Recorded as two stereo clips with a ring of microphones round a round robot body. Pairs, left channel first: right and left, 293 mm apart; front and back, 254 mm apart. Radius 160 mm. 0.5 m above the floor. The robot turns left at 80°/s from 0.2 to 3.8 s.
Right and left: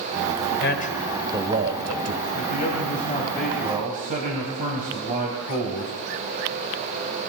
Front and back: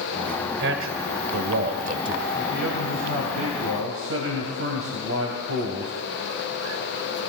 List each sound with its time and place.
0.6 s a man speaking: 130° right, 2.0 m; by 2.2 s 95° left, 2.0 m
2.4 s a man speaking: 90° right, 3 m; by 5.9 s 150° left, 3 m